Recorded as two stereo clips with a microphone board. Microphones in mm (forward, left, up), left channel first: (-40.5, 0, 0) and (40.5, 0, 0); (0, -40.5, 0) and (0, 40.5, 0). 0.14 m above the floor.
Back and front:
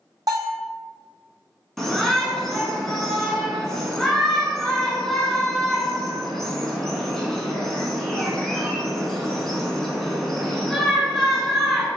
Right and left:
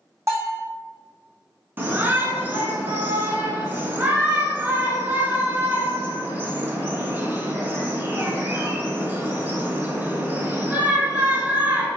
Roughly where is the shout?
Left.